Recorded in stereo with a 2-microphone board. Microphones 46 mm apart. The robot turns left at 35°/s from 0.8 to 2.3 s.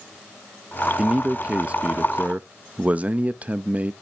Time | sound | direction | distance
1.0 | a man speaking | 40° right | 0.6 m